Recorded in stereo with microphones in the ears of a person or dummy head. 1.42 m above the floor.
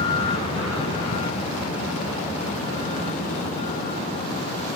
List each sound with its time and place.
0.0 s a vehicle: 35° left (ahead or behind); by 4.8 s 45° left (ahead or behind)